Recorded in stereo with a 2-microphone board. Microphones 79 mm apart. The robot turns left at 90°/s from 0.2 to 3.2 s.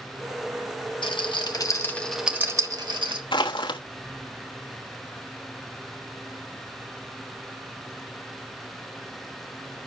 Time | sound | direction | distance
1.0 | a rattle | 80° left | 1.2 m
3.3 | crushing | 80° left | 1.0 m